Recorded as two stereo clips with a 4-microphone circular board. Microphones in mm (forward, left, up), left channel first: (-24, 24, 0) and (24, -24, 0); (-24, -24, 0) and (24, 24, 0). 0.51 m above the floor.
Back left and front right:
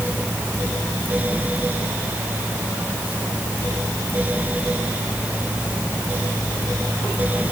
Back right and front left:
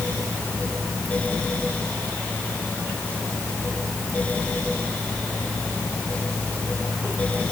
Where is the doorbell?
I don't hear a doorbell.